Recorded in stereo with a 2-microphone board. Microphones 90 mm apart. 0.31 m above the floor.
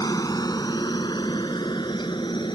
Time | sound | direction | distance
0.0 | a helicopter | 40° left (ahead or behind) | ?